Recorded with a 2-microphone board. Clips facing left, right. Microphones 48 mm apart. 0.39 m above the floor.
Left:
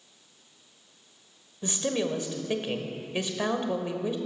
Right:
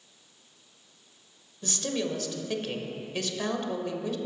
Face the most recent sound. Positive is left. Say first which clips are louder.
# left 3 dB
turn(degrees=20)  # may be behind; listen again after turning